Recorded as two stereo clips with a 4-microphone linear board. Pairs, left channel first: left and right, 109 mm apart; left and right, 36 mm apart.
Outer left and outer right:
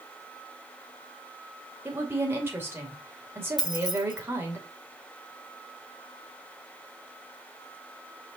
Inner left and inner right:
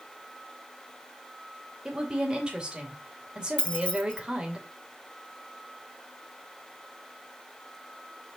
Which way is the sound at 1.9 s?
20° right (ahead or behind).